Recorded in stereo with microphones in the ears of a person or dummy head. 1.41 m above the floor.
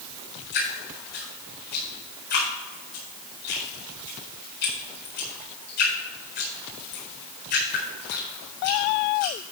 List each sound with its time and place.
0.5 s dripping: 55° left (ahead or behind), 4.5 m